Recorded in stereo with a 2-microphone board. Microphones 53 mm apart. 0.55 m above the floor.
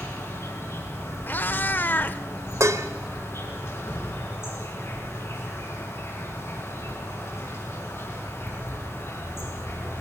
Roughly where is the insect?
Left.